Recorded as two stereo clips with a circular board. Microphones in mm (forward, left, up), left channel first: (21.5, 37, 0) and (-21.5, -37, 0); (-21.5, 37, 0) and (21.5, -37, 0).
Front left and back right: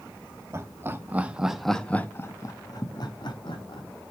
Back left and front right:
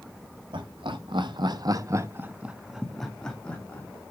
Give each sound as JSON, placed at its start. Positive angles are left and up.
{"t": 0.5, "sound": "laughter", "azimuth_deg": -65, "distance_m": 1.6}